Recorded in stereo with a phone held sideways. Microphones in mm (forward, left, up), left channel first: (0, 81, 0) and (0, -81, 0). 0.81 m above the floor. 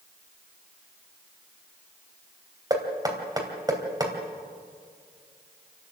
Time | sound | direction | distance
2.7 | knocking | 20° right (ahead or behind) | 3 m